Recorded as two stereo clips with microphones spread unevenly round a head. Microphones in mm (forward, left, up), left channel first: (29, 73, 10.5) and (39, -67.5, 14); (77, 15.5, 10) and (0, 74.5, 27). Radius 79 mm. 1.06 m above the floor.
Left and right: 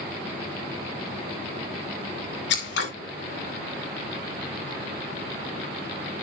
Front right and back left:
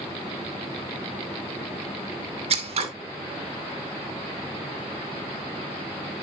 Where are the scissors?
120° left, 2.5 m.